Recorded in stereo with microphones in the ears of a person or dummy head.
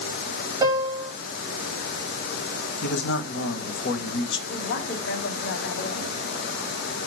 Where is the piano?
20° right (ahead or behind), 4 m.